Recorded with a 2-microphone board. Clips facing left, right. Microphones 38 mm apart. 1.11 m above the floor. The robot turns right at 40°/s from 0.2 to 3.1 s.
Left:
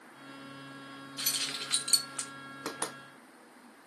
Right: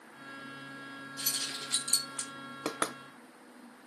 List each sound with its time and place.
1.2 s keys jangling: 50° left (ahead or behind), 0.7 m; by 2.3 s 85° left, 0.7 m
2.6 s knocking: 55° right (ahead or behind), 0.5 m; by 3.0 s 45° right (ahead or behind), 0.5 m